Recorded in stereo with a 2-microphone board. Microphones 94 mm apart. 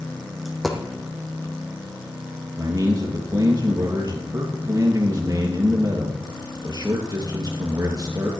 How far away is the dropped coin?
About 1.8 m.